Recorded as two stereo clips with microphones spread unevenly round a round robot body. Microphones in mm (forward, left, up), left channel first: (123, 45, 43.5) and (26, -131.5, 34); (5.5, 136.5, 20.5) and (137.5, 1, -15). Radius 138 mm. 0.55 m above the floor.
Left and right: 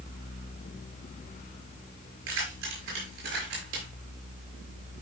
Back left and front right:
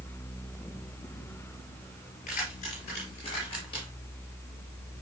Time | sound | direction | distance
2.3 | keys jangling | 160° right | 6.5 m